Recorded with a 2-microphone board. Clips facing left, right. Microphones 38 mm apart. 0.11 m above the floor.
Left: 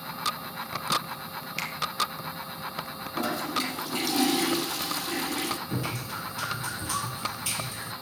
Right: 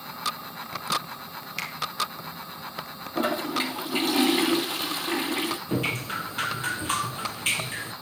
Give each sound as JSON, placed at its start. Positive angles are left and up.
{"t": 1.6, "sound": "a finger snap", "side_deg": 0, "distance_m": 2.5}
{"t": 3.1, "sound": "a toilet flushing", "side_deg": -35, "distance_m": 2.0}
{"t": 5.7, "sound": "dripping", "side_deg": -50, "distance_m": 1.1}